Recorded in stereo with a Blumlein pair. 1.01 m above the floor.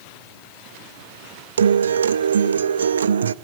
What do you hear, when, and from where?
1.6 s a guitar: 70° right, 0.6 m